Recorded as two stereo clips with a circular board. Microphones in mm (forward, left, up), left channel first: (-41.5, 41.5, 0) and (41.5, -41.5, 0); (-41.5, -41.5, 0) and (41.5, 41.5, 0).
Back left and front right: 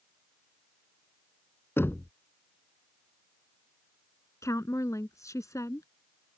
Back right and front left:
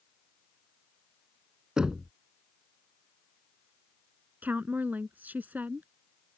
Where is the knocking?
115° left.